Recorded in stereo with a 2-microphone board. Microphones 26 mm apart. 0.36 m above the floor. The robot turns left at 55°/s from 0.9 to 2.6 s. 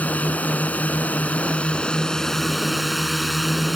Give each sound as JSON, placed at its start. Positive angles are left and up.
{"t": 0.0, "sound": "a drone", "azimuth_deg": 95}